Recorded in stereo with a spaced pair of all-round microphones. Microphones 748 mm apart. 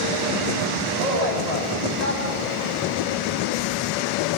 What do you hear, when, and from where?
1.0 s a man speaking: 55° left (ahead or behind), 9.5 m